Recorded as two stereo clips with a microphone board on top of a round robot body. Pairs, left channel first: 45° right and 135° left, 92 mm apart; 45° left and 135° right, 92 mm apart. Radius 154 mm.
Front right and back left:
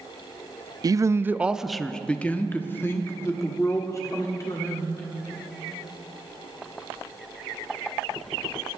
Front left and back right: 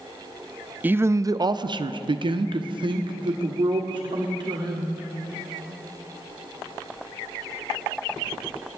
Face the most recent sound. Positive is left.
turn(degrees=-100)